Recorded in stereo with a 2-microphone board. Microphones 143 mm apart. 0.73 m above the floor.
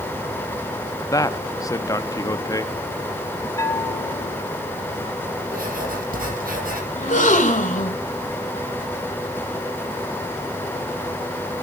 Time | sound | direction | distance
1.1 | a man speaking | 25° left (ahead or behind) | 0.8 m
3.6 | a bell | 20° left (ahead or behind) | 3.5 m
5.5 | writing | 80° right | 5 m
7.0 | a gasp | 60° left (ahead or behind) | 1.8 m